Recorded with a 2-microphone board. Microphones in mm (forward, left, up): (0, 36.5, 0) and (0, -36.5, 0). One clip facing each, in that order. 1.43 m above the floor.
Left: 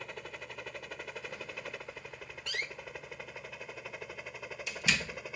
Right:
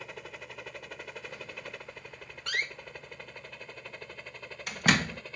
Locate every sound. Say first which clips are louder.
0.0 s a helicopter: even; centre (ahead or behind); by 5.4 s 10° left (ahead or behind)
2.5 s a door slam: right 5 dB; 60° right (ahead or behind)